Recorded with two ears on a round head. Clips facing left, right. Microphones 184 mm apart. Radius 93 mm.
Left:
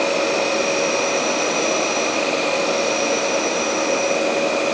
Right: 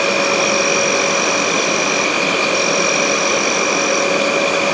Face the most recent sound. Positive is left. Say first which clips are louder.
# right 2 dB
turn(degrees=-80)